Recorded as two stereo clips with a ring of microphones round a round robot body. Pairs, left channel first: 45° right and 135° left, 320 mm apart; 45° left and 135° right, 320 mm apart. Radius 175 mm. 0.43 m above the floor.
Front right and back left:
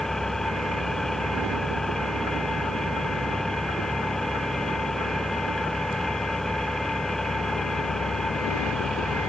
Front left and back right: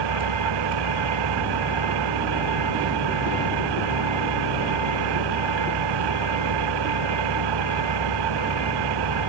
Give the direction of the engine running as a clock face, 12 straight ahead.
4 o'clock.